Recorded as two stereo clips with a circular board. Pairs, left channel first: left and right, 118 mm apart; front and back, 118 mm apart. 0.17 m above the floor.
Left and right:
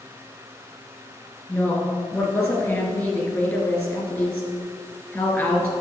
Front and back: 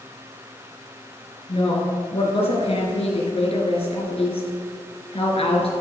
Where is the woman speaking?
25° left, 3 m.